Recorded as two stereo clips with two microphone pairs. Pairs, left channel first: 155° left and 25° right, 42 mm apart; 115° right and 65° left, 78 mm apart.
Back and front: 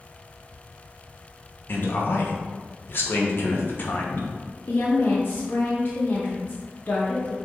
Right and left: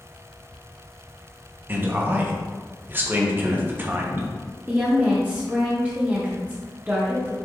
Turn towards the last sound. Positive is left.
turn(degrees=135)